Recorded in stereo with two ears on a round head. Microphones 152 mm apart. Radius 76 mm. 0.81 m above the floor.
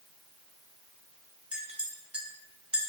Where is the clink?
5° right (ahead or behind), 1.4 m.